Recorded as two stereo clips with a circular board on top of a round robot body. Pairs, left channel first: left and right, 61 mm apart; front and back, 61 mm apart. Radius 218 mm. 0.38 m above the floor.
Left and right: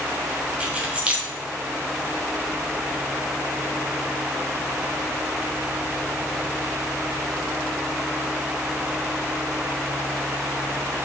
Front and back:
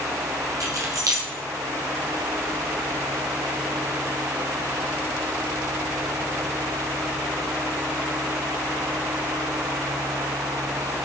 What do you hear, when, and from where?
0.6 s keys jangling: 160° right, 1.9 m